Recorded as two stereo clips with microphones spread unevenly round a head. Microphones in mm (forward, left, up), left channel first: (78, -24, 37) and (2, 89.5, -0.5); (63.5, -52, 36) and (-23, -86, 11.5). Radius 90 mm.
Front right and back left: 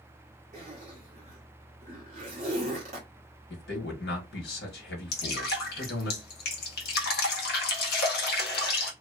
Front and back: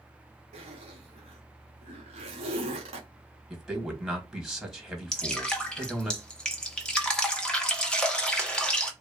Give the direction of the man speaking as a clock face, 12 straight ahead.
3 o'clock.